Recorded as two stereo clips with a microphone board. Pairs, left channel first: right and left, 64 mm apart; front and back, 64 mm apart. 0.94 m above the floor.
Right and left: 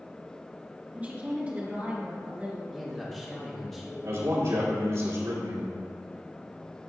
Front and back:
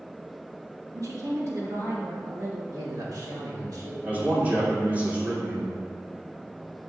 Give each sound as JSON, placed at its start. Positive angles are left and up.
{"t": 0.9, "sound": "a woman speaking", "azimuth_deg": 155, "distance_m": 2.0}
{"t": 2.7, "sound": "a man speaking", "azimuth_deg": -175, "distance_m": 2.0}
{"t": 4.0, "sound": "a man speaking", "azimuth_deg": 120, "distance_m": 2.5}